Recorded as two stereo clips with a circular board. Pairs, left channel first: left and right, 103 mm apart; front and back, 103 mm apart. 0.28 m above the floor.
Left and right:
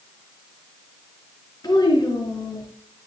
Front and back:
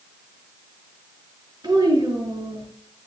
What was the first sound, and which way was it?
A child speaking, 135° left.